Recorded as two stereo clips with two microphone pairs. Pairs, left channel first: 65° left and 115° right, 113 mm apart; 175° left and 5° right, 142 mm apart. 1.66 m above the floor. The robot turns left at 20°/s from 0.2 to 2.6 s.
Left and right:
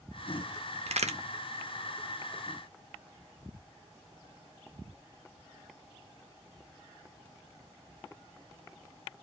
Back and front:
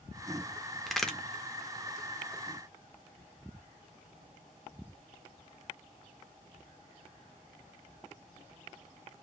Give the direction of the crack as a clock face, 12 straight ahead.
3 o'clock.